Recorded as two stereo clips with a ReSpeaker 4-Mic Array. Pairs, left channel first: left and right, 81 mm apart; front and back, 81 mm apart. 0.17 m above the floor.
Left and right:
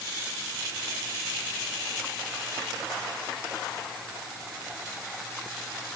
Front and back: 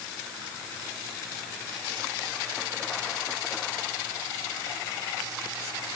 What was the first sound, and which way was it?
Only background noise.